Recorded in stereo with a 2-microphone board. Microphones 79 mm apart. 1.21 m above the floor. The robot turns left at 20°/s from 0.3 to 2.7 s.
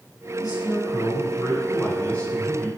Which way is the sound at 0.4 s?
55° left.